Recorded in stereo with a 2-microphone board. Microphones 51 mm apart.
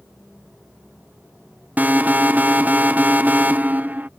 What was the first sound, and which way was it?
An alarm, 30° right (ahead or behind).